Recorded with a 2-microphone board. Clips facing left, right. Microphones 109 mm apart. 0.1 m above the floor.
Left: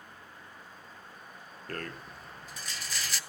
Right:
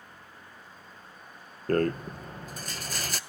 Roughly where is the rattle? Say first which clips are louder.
Right 15 dB; right.